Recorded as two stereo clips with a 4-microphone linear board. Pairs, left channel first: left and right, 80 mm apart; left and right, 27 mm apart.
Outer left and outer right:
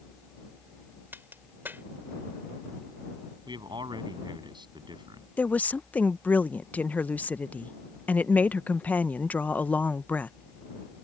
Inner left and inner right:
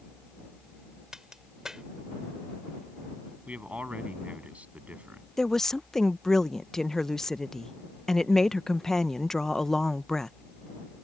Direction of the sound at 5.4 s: 20° left (ahead or behind).